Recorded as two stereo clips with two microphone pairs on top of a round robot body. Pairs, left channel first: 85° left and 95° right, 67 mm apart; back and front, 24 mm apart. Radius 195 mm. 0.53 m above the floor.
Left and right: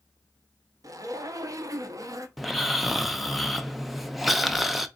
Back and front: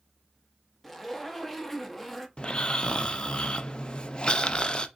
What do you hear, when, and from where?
0.8 s a zipper: 95° right, 0.9 m
2.4 s snoring: 160° right, 0.7 m